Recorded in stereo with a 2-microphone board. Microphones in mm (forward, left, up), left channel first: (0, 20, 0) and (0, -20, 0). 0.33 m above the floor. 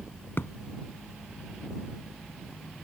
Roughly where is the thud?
Left.